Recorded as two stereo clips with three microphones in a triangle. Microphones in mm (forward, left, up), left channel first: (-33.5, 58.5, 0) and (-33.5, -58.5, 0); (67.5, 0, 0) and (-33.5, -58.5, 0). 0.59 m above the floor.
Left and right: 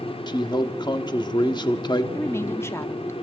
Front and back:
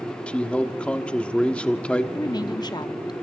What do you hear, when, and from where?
0.3 s a man speaking: 105° left, 1.3 m
2.1 s a woman speaking: 40° left, 0.7 m